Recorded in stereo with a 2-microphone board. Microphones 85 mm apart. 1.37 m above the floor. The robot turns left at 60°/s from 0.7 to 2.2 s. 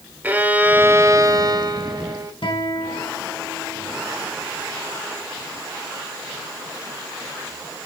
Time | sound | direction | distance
0.2 | a violin | 25° right | 1.5 m
2.4 | a guitar | 75° left (ahead or behind) | 4 m